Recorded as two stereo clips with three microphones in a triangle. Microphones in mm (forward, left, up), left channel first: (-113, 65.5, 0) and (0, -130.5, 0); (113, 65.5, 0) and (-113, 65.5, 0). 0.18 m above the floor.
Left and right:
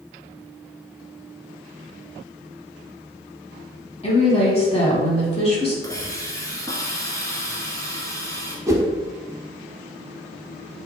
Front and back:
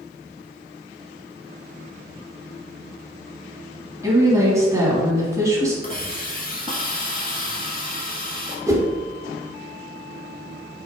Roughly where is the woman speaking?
Behind left.